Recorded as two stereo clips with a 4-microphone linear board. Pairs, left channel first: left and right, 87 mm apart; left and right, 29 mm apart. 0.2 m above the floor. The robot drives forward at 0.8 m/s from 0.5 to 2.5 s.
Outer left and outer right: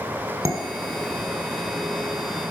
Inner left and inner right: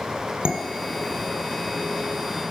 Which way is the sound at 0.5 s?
40° right (ahead or behind).